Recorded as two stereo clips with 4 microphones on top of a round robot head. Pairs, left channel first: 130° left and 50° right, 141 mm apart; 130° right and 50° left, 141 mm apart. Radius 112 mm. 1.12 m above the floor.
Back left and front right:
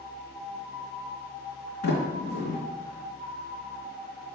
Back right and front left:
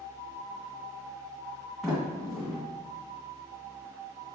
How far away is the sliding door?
About 1.7 m.